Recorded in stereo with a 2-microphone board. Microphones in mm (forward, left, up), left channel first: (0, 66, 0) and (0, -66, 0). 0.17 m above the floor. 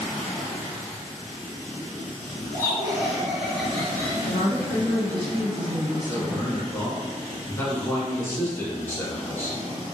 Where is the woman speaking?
40° right (ahead or behind), 1.3 m.